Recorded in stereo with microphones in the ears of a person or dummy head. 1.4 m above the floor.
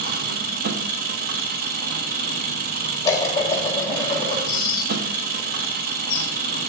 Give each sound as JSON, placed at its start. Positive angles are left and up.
{"t": 0.0, "sound": "an engine running", "side_deg": -45, "distance_m": 1.0}
{"t": 3.0, "sound": "dishes clattering", "side_deg": 15, "distance_m": 1.8}
{"t": 4.5, "sound": "whispering", "side_deg": 30, "distance_m": 2.0}